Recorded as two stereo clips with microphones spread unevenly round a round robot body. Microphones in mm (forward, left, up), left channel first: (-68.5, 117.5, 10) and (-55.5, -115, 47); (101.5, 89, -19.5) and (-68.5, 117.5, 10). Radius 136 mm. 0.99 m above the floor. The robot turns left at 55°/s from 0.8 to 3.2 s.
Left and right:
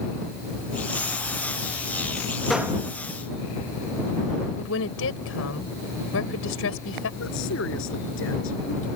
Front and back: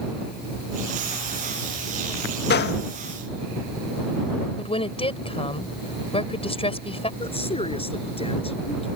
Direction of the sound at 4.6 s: 50° left.